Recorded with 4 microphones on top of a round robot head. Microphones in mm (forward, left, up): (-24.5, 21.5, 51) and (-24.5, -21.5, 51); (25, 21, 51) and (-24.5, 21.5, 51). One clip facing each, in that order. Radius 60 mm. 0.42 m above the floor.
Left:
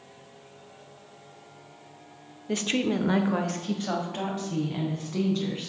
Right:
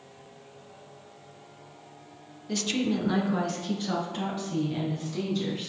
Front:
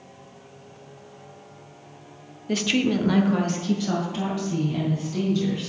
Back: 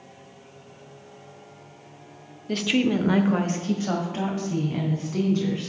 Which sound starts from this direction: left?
A woman speaking, at 2.5 s.